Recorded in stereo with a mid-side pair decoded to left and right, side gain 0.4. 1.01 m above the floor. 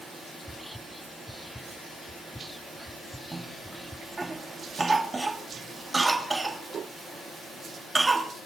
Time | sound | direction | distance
0.4 | whispering | 5° left | 1.2 m
3.3 | a cough | 25° right | 2.5 m